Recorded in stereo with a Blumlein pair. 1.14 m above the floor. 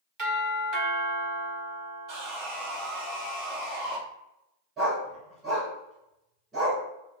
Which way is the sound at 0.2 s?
35° right.